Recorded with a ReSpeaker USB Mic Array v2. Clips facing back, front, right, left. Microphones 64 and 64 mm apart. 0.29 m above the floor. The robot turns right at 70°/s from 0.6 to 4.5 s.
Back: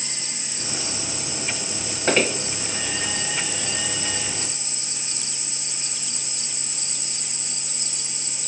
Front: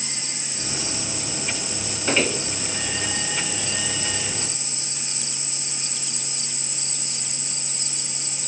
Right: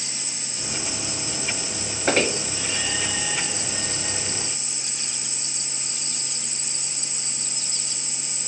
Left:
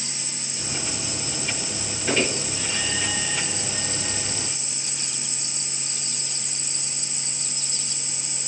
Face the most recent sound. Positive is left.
turn(degrees=35)